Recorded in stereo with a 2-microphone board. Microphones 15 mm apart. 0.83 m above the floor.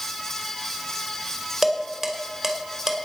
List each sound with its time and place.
1.6 s dishes clattering: 20° right (ahead or behind), 2 m